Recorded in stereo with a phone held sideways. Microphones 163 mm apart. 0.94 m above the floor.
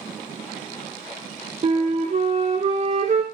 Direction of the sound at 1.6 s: 45° right (ahead or behind).